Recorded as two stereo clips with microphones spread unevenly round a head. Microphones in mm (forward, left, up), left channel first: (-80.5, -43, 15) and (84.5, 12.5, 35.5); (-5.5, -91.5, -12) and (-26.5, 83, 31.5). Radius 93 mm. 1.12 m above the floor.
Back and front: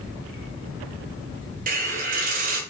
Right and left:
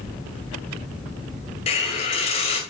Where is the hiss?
20° right, 2 m.